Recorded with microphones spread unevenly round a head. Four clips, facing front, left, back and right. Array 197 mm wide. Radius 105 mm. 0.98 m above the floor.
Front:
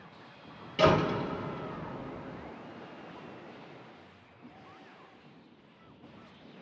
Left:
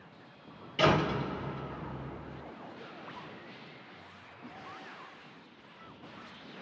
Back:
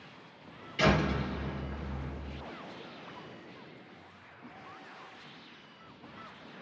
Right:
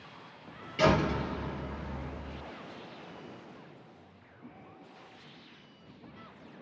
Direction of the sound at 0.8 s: 5° right.